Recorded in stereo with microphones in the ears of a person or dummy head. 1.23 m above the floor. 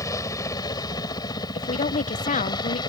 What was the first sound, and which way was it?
A helicopter, 20° left (ahead or behind).